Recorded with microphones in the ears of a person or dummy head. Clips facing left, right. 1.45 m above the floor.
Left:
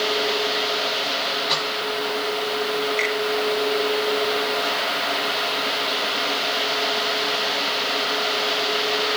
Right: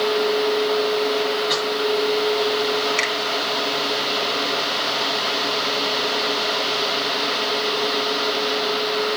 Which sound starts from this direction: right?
A finger snap, at 3.0 s.